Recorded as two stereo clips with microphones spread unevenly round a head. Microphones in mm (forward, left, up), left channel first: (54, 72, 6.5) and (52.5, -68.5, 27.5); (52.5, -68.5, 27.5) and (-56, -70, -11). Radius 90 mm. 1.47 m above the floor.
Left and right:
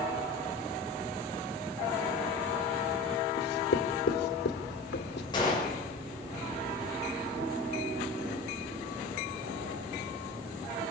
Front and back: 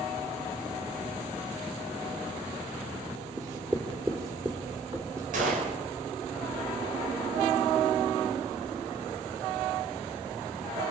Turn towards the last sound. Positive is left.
turn(degrees=160)